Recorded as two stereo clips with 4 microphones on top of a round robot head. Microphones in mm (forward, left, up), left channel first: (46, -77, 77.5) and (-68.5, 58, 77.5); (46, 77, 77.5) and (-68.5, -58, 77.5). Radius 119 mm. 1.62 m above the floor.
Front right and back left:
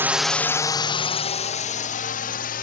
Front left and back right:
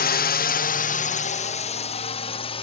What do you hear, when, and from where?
0.0 s a drone: 55° left; by 2.6 s 10° right